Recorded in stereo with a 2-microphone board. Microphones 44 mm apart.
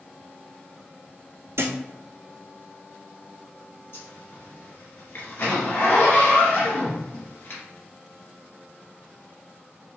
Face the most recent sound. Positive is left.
turn(degrees=60)  # may be behind; listen again after turning